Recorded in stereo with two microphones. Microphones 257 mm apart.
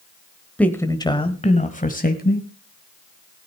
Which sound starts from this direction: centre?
A man speaking, at 0.6 s.